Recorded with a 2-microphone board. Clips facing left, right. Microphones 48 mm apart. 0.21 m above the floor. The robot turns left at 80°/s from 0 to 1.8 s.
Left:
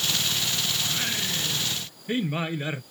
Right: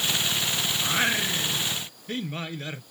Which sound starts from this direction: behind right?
Singing, at 0.8 s.